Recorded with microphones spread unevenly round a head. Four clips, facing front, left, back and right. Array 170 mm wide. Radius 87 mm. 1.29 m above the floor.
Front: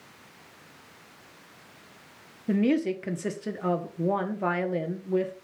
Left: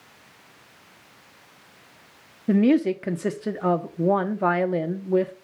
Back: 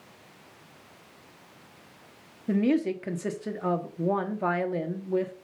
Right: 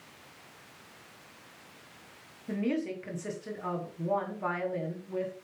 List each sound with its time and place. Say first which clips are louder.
2.5 s a woman speaking: left 13 dB, even; 75° left, 1.1 m